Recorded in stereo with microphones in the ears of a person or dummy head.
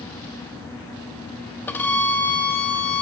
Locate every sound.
1.7 s a violin: 5° left (ahead or behind), 0.7 m